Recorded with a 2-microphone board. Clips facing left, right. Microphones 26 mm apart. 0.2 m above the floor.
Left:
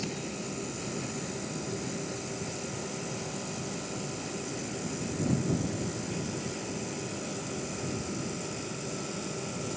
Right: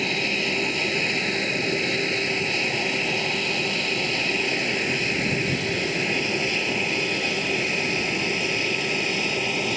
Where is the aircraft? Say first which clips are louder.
Right 13 dB; 70° right (ahead or behind); by 9.8 s 65° right (ahead or behind).